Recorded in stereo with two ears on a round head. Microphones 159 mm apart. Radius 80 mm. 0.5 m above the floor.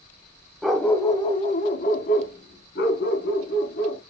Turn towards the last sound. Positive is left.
turn(degrees=80)